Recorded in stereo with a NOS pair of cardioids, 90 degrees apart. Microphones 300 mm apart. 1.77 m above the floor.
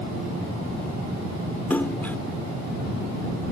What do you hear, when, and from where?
1.7 s a splash: 5° left